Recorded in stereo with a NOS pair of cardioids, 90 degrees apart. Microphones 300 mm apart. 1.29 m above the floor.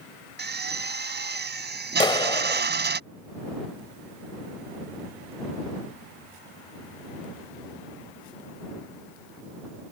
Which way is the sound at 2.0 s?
15° left.